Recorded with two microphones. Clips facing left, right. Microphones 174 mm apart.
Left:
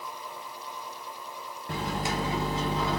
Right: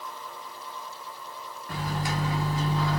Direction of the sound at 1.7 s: 25° left (ahead or behind).